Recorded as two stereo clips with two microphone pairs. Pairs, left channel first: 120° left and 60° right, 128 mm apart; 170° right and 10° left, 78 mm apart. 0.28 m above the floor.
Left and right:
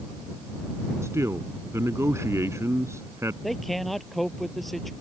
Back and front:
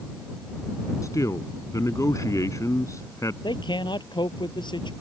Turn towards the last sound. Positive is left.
turn(degrees=-150)